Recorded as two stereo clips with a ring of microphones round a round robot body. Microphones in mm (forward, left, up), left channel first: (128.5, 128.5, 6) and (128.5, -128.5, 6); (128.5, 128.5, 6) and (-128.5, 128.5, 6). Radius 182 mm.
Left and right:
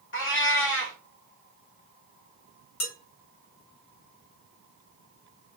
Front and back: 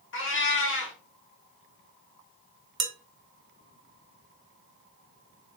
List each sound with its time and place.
0.1 s a cat meowing: 45° left, 1.2 m
2.8 s dishes clattering: 135° left, 0.8 m